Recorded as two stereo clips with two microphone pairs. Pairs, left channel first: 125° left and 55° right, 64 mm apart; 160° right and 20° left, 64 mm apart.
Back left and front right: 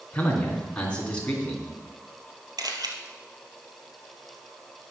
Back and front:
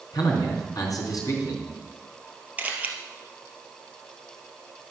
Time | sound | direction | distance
0.1 | a man speaking | 160° right | 3.5 m
2.6 | a camera shutter | 45° right | 2.0 m